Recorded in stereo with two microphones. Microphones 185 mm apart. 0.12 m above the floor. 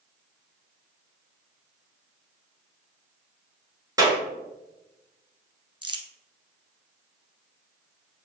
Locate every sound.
4.0 s a clap: 20° right (ahead or behind), 1.2 m
5.8 s crumpling: 30° right (ahead or behind), 0.6 m